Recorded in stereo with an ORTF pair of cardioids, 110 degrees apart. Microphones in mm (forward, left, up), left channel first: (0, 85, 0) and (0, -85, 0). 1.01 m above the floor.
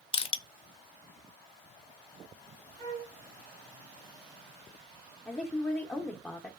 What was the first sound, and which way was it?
Crushing, 35° left.